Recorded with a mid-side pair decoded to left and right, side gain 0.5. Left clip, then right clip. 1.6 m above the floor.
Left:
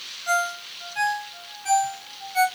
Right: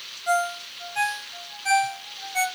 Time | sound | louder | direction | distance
0.3 | a ringtone | even | 20° right | 2 m